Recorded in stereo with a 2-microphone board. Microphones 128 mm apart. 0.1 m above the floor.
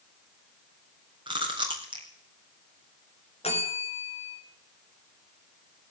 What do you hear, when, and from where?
1.3 s chewing: 40° right (ahead or behind), 5 m
3.4 s a bell: 50° left (ahead or behind), 7 m